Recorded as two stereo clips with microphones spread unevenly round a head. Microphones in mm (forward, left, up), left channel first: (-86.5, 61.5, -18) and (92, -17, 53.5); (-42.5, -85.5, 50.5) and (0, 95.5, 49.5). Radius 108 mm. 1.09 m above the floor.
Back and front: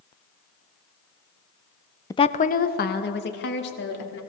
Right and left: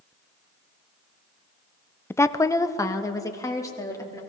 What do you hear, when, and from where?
2.1 s a woman speaking: 175° right, 0.5 m